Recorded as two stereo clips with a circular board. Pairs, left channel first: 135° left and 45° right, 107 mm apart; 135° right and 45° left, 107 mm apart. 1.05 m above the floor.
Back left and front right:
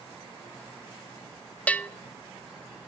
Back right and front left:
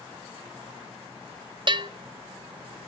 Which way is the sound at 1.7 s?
60° left.